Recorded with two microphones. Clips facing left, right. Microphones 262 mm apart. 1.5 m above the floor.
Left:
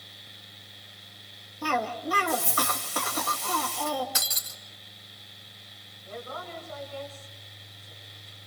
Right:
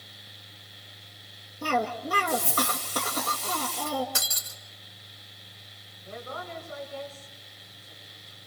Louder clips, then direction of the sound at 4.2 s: Right 1 dB; 55° right (ahead or behind).